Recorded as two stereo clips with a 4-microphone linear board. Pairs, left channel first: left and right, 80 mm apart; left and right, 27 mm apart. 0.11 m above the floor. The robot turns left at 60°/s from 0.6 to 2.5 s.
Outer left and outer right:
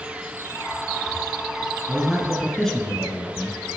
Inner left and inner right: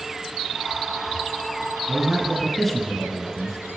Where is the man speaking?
5° right (ahead or behind), 1.2 m; by 3.6 s 5° left (ahead or behind), 1.2 m.